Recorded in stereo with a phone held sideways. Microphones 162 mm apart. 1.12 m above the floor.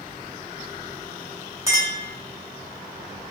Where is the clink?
15° right (ahead or behind), 1.1 m.